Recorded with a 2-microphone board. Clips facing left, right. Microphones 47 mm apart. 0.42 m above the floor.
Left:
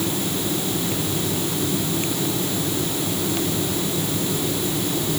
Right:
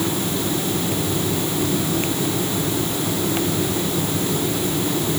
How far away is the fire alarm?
No fire alarm in this recording.